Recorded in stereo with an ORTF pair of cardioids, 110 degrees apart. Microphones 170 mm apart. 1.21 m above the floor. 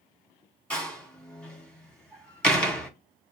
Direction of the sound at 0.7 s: 5° left.